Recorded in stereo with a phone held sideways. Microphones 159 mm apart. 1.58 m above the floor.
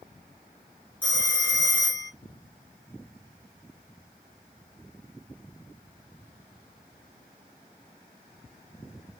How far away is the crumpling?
I don't hear crumpling.